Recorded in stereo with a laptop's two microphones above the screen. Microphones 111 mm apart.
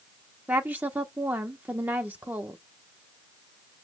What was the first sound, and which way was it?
A woman speaking, 15° right (ahead or behind).